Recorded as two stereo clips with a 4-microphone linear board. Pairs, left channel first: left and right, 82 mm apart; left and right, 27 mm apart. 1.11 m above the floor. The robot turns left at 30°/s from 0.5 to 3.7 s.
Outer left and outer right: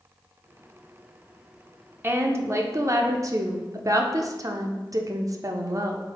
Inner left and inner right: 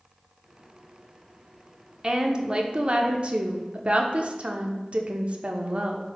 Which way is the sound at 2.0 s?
45° right.